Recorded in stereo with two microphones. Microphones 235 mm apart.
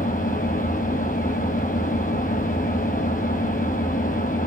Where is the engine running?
35° left (ahead or behind), 1.0 m.